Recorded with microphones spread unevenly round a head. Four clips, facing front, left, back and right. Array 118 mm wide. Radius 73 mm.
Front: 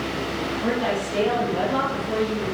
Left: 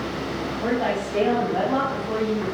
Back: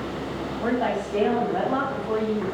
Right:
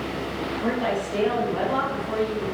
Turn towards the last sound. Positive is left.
turn(degrees=135)